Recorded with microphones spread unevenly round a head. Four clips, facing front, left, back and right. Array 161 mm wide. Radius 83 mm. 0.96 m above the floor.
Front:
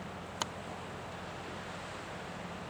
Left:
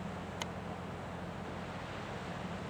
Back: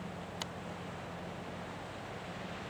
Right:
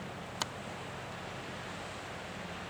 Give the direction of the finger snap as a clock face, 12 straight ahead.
1 o'clock.